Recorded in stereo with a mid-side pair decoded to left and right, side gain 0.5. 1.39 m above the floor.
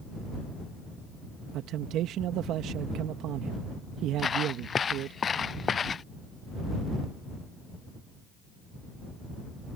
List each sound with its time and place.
1.5 s a man speaking: 70° right
4.2 s footsteps: 35° left